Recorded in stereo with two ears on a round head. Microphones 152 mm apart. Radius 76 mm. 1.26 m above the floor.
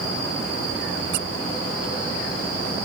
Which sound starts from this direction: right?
A squeak, at 1.1 s.